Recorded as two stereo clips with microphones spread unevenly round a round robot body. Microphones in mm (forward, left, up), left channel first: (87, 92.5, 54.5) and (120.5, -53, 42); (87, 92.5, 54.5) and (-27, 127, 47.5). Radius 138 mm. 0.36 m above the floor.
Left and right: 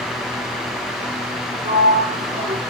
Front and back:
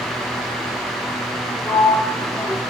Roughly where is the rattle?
I don't hear a rattle.